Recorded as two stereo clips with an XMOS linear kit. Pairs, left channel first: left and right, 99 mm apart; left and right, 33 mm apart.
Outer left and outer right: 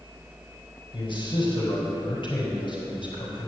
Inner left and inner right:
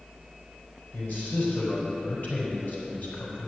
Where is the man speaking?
55° left (ahead or behind), 4 m.